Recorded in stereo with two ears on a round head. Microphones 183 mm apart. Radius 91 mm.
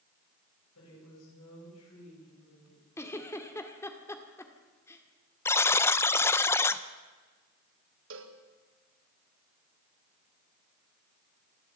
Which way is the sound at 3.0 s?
15° left (ahead or behind).